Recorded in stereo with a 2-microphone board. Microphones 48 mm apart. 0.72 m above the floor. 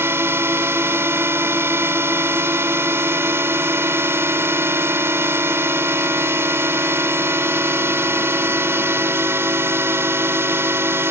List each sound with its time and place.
0.0 s a drone: 60° right (ahead or behind)